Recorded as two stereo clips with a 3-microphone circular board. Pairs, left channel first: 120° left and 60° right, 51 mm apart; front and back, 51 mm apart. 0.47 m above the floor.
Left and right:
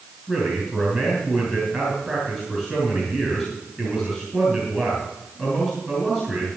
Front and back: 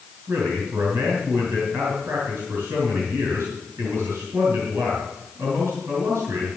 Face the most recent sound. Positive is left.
turn(degrees=-145)